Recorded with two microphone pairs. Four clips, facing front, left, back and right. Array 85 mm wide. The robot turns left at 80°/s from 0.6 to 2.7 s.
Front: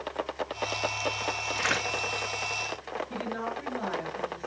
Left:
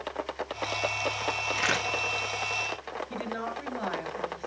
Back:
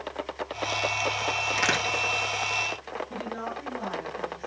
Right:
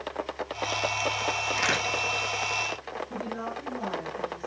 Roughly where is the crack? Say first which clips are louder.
Even, back 3 dB; behind right.